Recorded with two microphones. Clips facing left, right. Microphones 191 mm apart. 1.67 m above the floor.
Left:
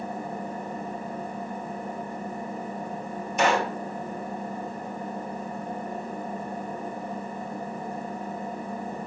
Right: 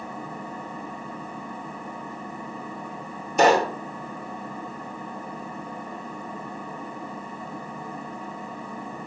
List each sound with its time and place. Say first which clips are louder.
0.0 s an engine running: left 3 dB; 45° left (ahead or behind), 5 m
3.4 s a pop: right 6 dB; 35° right (ahead or behind), 1.8 m